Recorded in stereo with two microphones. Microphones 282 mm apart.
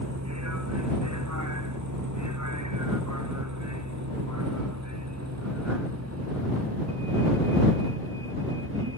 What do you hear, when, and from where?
0.0 s a vehicle: 65° right (ahead or behind); by 9.0 s 45° right (ahead or behind)